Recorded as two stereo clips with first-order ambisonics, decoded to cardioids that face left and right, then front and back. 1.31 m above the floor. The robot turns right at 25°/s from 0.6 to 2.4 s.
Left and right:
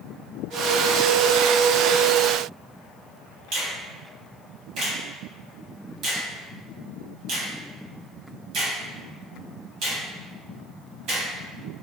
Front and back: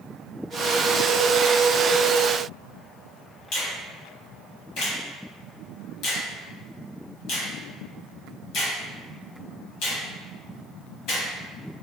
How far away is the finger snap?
About 1.2 m.